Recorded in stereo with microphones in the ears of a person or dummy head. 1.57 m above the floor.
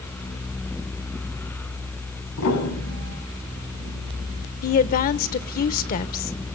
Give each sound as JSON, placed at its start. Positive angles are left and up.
{"t": 2.4, "sound": "a piano", "side_deg": 85, "distance_m": 7.5}
{"t": 4.6, "sound": "a woman speaking", "side_deg": 45, "distance_m": 1.0}